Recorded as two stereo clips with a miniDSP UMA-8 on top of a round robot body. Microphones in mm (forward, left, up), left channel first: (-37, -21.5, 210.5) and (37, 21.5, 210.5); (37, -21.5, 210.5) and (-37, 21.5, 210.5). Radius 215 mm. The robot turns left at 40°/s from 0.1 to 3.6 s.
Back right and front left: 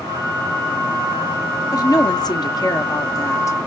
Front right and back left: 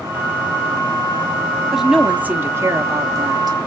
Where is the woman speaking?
125° right, 1.2 m; by 3.6 s 165° left, 1.2 m.